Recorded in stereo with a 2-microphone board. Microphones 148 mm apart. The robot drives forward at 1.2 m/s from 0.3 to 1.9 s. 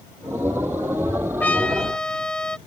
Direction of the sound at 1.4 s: 10° left (ahead or behind).